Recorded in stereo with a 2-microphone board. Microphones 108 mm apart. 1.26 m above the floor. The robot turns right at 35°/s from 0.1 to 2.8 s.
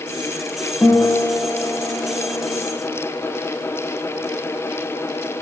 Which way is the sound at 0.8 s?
25° left.